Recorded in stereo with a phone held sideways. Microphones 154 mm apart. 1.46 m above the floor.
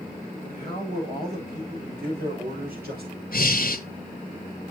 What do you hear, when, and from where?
0.4 s a man speaking: 70° right (ahead or behind), 7 m; by 3.2 s 85° right, 6 m
3.3 s breathing: 70° left (ahead or behind), 1.0 m